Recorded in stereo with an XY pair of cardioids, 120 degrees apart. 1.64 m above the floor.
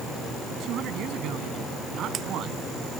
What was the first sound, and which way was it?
A man speaking, 65° right.